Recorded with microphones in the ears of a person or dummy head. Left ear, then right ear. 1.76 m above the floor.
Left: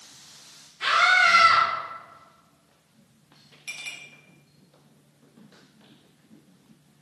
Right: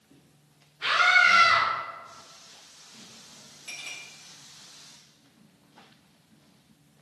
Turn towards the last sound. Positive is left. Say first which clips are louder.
# left 3 dB
turn(degrees=25)  # may be behind; listen again after turning